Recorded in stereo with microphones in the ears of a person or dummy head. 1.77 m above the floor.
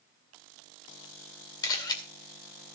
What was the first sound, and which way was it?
A camera shutter, 20° left (ahead or behind).